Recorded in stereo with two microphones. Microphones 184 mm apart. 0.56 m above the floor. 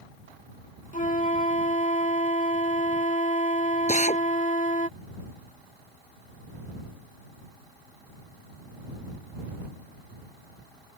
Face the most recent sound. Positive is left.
turn(degrees=40)  # may be behind; listen again after turning